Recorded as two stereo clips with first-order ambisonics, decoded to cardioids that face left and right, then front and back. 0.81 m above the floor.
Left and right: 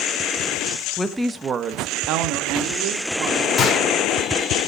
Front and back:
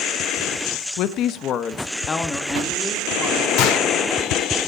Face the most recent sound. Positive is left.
turn(degrees=25)